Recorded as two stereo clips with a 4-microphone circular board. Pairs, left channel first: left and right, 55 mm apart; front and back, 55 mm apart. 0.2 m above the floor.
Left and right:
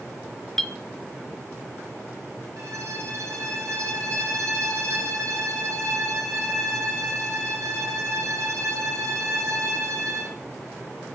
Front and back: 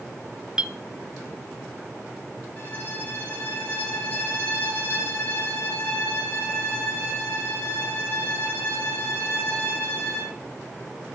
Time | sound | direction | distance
0.6 | a clink | 140° left | 1.0 m
2.6 | a violin | 60° right | 8 m